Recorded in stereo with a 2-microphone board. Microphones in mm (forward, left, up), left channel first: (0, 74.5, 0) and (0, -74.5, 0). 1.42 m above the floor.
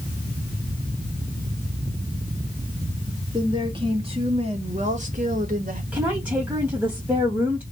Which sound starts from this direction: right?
A woman speaking, at 3.3 s.